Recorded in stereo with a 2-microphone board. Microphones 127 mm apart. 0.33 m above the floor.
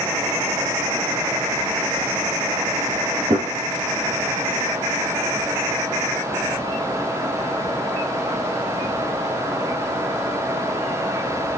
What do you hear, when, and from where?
3.3 s a gunshot: 45° right (ahead or behind), 4.5 m